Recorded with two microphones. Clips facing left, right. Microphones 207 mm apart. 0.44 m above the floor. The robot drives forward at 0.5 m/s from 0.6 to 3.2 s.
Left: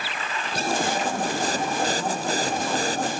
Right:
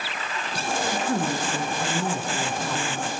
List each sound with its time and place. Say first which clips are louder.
0.9 s a woman speaking: right 1 dB; 80° right, 5.5 m; by 3.1 s 75° right (ahead or behind), 5.5 m